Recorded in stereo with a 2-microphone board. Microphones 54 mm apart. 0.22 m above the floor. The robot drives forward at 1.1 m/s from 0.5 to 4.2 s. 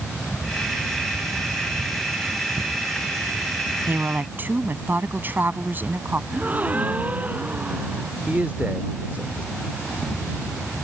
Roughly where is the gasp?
Right.